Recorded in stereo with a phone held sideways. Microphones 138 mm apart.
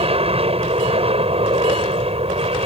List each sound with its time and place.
0.0 s an aircraft: 45° right (ahead or behind)